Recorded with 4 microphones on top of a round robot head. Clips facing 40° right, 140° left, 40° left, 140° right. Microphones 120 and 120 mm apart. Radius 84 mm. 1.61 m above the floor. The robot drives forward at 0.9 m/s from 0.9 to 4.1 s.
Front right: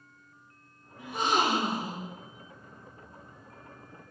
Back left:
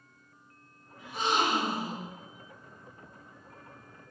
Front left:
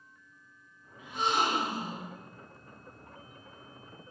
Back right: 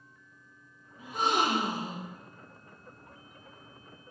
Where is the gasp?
80° right, 1.3 m; by 2.1 s 120° right, 1.5 m.